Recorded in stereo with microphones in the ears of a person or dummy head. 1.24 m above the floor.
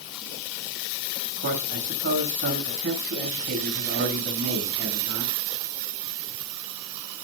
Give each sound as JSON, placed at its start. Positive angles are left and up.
{"t": 1.4, "sound": "a man speaking", "side_deg": -65, "distance_m": 8.0}